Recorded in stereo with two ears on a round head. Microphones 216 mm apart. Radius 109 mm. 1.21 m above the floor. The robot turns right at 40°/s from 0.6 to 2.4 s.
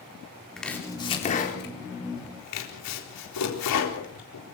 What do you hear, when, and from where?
0.6 s chopping: centre (ahead or behind), 4 m; by 4.4 s 75° left (ahead or behind), 4 m